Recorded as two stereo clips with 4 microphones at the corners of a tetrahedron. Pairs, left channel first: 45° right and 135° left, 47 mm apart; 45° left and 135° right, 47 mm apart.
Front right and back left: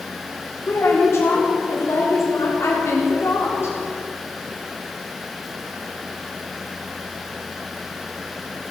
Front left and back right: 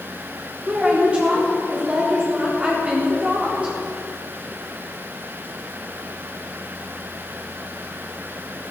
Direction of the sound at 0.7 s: 70° right.